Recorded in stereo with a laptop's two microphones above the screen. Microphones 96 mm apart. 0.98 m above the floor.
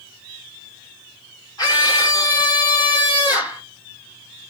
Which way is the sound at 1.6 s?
45° left (ahead or behind).